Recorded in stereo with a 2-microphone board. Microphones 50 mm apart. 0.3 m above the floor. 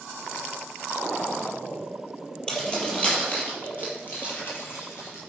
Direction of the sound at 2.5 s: 20° left (ahead or behind).